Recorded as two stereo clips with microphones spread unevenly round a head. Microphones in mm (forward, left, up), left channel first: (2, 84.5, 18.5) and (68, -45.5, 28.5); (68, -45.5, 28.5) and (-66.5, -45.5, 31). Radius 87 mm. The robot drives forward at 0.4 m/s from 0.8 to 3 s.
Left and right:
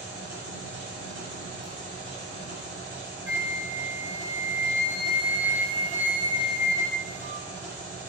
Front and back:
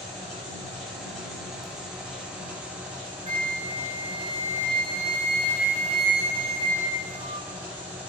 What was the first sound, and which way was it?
An engine running, 85° right.